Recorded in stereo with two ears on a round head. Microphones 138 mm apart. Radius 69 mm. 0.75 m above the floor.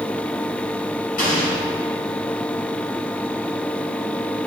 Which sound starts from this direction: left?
An explosion, at 1.2 s.